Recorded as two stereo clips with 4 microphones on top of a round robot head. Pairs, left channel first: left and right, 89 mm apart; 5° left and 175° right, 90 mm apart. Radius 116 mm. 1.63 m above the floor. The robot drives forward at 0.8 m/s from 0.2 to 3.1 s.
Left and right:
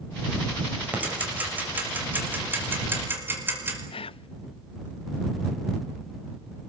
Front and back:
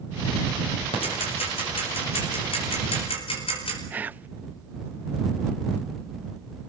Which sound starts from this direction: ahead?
Ticking, at 0.9 s.